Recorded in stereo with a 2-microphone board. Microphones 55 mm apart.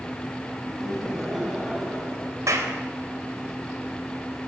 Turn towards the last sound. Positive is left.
turn(degrees=-70)  # may be behind; listen again after turning